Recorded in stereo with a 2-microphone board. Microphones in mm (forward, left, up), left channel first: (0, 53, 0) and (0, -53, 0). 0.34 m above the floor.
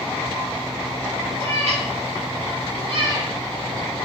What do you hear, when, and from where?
1.4 s a cat meowing: 75° right (ahead or behind), 1.3 m; by 3.3 s 40° right (ahead or behind), 0.5 m